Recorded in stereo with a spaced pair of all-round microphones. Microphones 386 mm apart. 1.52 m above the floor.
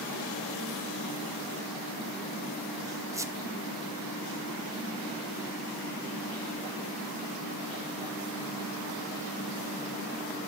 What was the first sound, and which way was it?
A squeak, 10° right (ahead or behind).